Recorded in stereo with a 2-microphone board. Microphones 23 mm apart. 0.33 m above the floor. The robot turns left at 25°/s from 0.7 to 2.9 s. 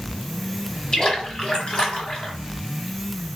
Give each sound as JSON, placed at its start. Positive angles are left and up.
{"t": 0.9, "sound": "a splash", "azimuth_deg": 135, "distance_m": 2.0}